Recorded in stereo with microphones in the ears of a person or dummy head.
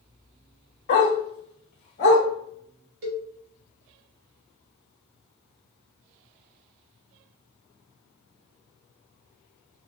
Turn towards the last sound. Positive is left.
turn(degrees=-60)  # may be behind; listen again after turning